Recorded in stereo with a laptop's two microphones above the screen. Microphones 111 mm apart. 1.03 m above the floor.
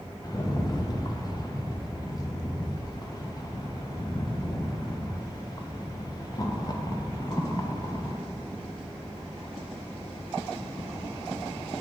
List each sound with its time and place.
0.2 s a rattle: 35° left (ahead or behind), 0.5 m